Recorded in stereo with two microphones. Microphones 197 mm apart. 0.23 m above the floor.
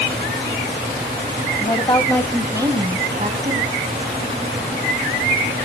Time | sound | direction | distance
1.6 | a woman speaking | 35° left (ahead or behind) | 1.5 m